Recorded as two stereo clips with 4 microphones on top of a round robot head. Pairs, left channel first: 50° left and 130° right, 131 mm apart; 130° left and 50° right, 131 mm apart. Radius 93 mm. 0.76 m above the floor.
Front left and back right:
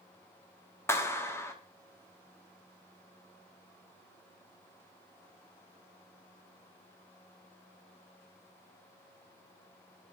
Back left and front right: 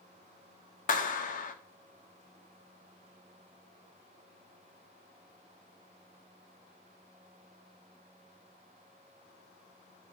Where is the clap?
120° left, 1.2 m.